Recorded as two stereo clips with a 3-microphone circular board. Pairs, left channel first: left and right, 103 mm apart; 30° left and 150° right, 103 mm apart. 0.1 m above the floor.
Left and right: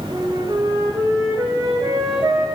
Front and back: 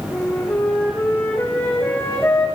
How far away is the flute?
About 5.5 m.